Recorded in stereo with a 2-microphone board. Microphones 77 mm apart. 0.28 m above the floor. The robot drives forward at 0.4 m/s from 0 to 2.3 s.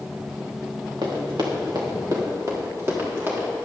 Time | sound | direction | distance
1.0 | running footsteps | 75° right (ahead or behind) | 3 m